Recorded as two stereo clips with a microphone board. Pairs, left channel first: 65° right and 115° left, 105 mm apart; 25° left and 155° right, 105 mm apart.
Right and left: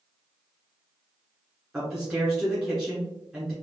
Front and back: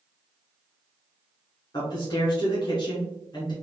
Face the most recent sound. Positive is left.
turn(degrees=35)